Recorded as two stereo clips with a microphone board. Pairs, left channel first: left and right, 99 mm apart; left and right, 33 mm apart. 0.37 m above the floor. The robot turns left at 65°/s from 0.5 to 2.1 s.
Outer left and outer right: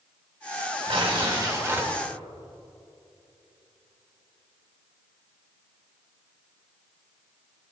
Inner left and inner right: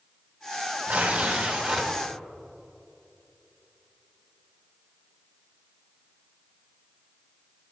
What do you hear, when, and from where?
0.9 s tearing paper: 95° right, 2 m; by 1.9 s 165° right, 2 m